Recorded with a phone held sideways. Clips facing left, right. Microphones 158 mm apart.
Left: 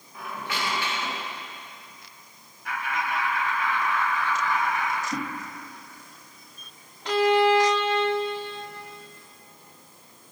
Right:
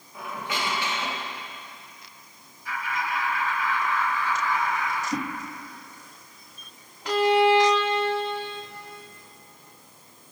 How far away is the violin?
About 1.1 m.